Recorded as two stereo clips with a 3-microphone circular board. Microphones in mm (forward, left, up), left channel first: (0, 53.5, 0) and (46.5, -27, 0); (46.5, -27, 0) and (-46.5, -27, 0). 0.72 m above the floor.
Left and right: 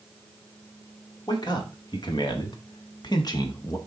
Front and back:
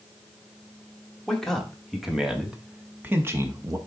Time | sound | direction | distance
1.3 | a man speaking | 80° left | 2 m